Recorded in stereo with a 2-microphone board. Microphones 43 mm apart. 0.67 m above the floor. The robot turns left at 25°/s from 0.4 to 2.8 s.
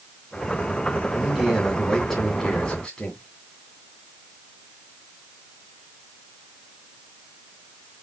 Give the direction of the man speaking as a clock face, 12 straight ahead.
5 o'clock.